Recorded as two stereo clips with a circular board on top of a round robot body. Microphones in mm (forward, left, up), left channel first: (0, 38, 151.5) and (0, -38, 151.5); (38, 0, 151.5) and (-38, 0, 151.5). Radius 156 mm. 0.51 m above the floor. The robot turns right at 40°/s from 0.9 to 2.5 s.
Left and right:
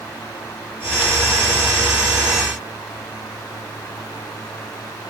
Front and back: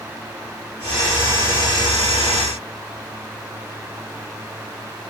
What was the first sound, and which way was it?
Only background noise.